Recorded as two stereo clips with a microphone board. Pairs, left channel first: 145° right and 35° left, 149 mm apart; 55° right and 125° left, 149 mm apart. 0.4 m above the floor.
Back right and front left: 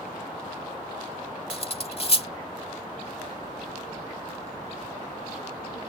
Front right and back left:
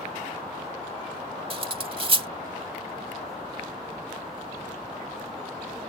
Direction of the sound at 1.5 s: 170° left.